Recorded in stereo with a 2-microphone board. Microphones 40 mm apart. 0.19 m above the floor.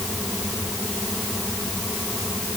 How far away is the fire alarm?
I don't hear a fire alarm.